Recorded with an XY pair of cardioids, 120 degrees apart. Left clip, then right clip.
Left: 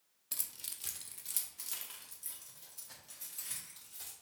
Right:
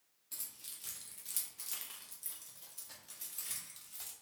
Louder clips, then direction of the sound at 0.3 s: Left 5 dB; 60° left.